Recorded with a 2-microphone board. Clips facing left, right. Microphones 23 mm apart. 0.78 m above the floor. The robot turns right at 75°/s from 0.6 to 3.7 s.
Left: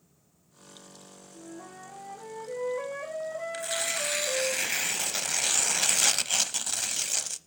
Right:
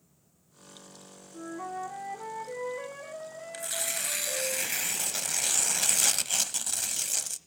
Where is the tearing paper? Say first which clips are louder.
Left 1 dB; 15° left (ahead or behind), 0.6 m.